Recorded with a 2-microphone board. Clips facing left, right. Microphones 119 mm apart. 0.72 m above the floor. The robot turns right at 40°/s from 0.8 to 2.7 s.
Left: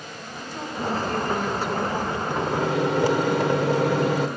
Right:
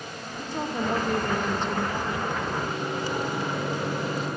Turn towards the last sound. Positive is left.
turn(degrees=80)